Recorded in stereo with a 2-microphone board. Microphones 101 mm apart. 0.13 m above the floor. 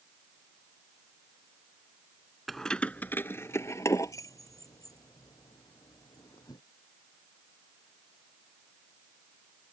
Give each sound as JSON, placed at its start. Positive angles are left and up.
{"t": 2.5, "sound": "keys jangling", "side_deg": 0}